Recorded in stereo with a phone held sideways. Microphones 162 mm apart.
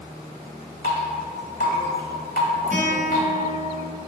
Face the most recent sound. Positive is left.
turn(degrees=-55)  # may be behind; listen again after turning